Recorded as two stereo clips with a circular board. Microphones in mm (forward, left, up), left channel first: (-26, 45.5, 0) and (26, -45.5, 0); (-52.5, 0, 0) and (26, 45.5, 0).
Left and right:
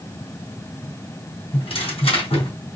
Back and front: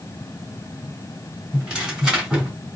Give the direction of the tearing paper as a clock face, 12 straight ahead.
8 o'clock.